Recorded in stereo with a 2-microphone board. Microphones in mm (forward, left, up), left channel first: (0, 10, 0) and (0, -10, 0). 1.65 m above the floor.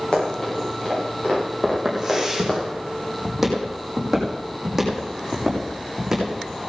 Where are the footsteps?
5° right (ahead or behind), 4.5 m; by 6.6 s 10° right (ahead or behind), 7 m.